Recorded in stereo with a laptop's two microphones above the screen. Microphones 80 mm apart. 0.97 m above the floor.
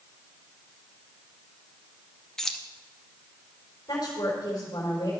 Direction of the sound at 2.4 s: 5° left (ahead or behind).